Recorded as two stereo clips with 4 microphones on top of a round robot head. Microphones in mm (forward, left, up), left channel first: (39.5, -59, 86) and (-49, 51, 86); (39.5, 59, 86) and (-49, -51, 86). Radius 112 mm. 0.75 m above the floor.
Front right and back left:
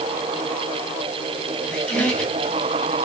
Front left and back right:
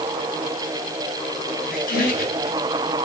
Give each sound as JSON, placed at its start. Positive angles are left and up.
{"t": 1.6, "sound": "a squeak", "azimuth_deg": 35, "distance_m": 4.5}